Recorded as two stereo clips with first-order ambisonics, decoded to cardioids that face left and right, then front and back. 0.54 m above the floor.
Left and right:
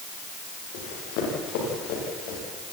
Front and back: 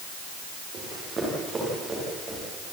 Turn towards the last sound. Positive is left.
turn(degrees=100)